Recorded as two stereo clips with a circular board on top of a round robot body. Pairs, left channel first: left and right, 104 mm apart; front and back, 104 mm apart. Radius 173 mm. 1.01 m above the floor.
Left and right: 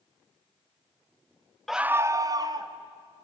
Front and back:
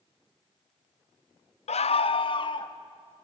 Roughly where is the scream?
Ahead.